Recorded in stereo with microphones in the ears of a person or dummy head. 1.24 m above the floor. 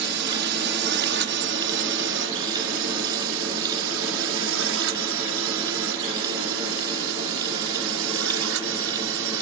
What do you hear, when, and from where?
0.0 s a drone: 55° right (ahead or behind); by 9.4 s 70° right (ahead or behind)